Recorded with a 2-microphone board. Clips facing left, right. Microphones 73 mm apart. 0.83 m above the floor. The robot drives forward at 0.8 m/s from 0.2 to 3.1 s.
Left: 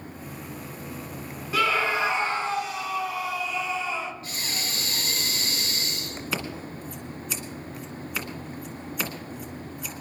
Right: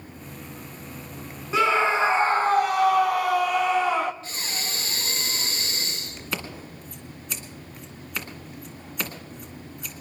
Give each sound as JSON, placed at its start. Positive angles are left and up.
{"t": 1.5, "sound": "a scream", "side_deg": -25, "distance_m": 1.3}
{"t": 4.2, "sound": "breathing", "side_deg": -35, "distance_m": 2.5}
{"t": 6.3, "sound": "scissors", "side_deg": 0, "distance_m": 2.0}